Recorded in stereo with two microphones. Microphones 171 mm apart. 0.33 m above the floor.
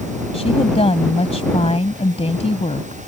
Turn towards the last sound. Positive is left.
turn(degrees=40)  # may be behind; listen again after turning